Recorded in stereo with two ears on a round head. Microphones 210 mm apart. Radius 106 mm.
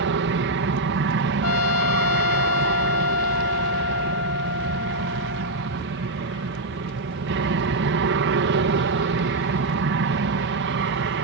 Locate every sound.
0.0 s an aircraft: 50° right (ahead or behind)
1.4 s a trumpet: 70° left (ahead or behind)